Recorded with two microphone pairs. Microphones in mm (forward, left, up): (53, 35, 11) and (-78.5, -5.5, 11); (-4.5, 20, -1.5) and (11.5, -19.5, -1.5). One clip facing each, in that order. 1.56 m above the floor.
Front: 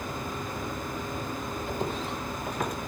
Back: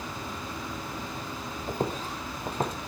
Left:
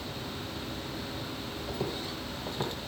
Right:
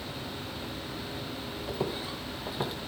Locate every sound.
1.7 s footsteps: 135° right, 2.5 m; by 2.8 s 150° right, 1.7 m